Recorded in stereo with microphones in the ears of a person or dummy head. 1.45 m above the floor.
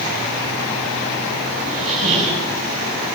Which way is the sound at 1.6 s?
35° right (ahead or behind).